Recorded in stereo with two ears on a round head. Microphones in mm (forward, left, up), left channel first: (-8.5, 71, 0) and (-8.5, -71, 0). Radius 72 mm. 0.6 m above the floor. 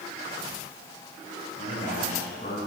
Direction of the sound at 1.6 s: 35° left (ahead or behind).